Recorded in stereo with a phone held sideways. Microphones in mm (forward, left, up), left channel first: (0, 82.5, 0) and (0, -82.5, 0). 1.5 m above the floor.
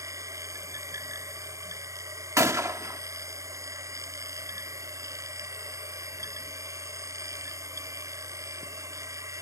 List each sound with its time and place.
0.0 s a machine running: 20° right (ahead or behind)
2.4 s a gunshot: 20° right (ahead or behind)